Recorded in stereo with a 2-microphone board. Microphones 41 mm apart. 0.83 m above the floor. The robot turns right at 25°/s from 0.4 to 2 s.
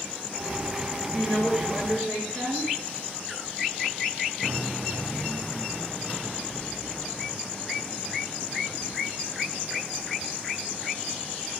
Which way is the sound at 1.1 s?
10° left (ahead or behind).